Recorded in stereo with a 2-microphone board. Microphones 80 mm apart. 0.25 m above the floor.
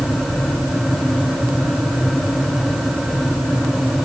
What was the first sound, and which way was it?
Only background noise.